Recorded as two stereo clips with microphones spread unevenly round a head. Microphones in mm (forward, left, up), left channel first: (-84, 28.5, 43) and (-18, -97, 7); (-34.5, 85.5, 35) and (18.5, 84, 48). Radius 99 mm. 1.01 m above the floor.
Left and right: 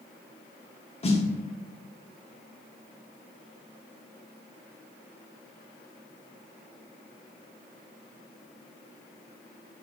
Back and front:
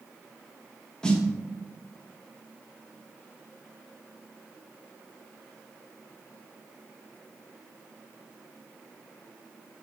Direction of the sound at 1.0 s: 150° left.